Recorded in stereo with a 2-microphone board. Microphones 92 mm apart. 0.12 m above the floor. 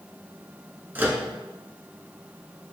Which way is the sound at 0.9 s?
20° right (ahead or behind).